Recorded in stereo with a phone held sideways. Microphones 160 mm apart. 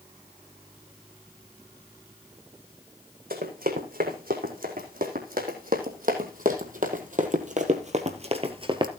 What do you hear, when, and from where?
3.3 s running footsteps: 70° right (ahead or behind), 4.5 m; by 8.9 s 30° right (ahead or behind), 1.3 m